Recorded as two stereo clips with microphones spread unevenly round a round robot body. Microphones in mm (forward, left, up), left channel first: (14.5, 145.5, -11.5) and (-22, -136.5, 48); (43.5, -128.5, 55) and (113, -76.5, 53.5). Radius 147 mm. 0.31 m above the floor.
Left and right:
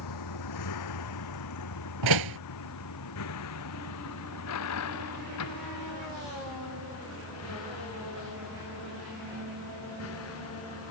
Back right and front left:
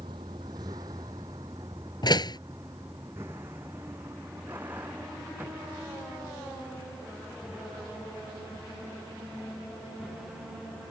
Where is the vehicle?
100° left; by 10.9 s 125° left.